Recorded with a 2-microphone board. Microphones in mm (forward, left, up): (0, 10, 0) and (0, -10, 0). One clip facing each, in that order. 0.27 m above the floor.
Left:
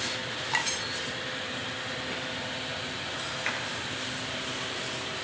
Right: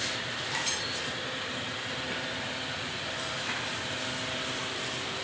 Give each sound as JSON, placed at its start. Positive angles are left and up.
{"t": 0.5, "sound": "a clink", "side_deg": 35, "distance_m": 0.9}
{"t": 3.5, "sound": "a clap", "side_deg": 65, "distance_m": 4.0}